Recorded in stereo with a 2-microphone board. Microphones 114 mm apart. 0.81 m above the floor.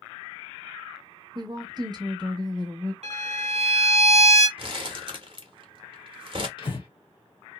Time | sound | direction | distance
1.4 | a woman speaking | 40° right (ahead or behind) | 1.0 m
3.0 | a violin | 70° right (ahead or behind) | 0.8 m
4.6 | crumpling | 50° right (ahead or behind) | 0.8 m
6.6 | breathing | 50° left (ahead or behind) | 1.0 m